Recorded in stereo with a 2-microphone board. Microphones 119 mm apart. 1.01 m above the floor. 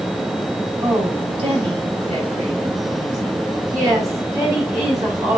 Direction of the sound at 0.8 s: 50° right (ahead or behind).